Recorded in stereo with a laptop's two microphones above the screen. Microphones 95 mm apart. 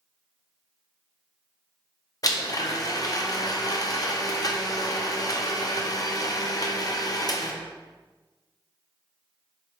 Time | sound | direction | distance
2.2 | a blender | 40° left (ahead or behind) | 0.6 m